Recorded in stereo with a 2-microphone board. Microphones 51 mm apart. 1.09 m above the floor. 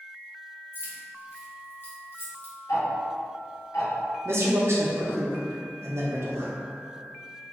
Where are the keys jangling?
45° left (ahead or behind), 0.8 m.